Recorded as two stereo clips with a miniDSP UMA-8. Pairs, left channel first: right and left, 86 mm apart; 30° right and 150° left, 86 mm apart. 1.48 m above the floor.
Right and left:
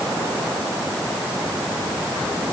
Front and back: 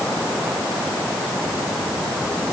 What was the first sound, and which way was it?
Only background noise.